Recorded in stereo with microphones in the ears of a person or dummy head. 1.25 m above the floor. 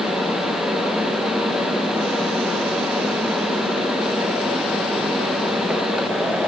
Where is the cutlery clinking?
No cutlery clinking in this recording.